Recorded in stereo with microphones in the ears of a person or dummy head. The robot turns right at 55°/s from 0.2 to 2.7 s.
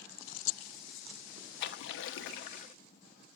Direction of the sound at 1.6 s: 70° left.